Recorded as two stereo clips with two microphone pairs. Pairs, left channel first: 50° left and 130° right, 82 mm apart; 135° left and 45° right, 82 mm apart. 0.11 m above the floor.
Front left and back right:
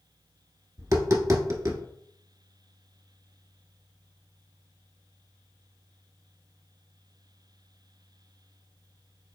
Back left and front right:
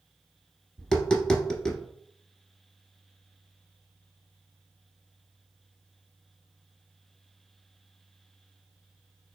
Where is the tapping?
150° right, 0.8 m.